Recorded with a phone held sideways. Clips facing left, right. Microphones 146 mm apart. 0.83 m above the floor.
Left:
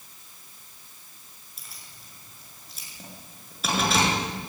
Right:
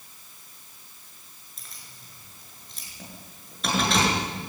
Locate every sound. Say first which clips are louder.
1.6 s keys jangling: even; 5° left (ahead or behind), 7.5 m